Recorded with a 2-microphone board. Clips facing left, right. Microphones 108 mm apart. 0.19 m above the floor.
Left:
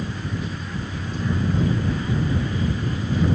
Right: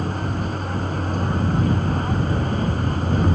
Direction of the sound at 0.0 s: 50° right (ahead or behind).